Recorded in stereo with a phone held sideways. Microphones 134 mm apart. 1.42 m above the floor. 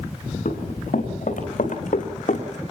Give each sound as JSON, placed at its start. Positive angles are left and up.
{"t": 0.5, "sound": "running footsteps", "side_deg": 75, "distance_m": 5.5}